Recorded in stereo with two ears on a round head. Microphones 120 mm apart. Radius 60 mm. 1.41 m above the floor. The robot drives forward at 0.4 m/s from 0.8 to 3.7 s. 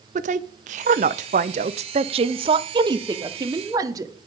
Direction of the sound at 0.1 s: 55° right (ahead or behind).